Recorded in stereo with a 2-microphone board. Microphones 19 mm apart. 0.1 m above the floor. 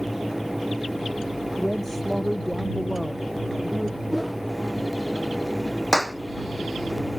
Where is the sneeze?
I don't hear a sneeze.